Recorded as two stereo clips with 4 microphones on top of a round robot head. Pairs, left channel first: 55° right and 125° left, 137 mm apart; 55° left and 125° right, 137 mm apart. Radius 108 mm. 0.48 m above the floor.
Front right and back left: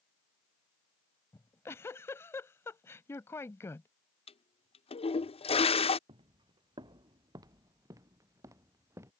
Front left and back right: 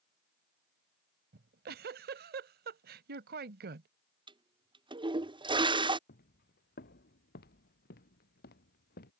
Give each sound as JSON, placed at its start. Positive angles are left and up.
{"t": 1.3, "sound": "a giggle", "azimuth_deg": -130}
{"t": 4.3, "sound": "a toilet flushing", "azimuth_deg": -85}
{"t": 6.1, "sound": "footsteps", "azimuth_deg": 70}